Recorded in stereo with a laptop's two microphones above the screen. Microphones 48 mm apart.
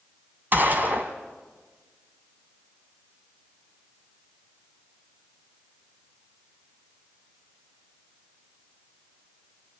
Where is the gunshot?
40° right (ahead or behind), 2.5 m.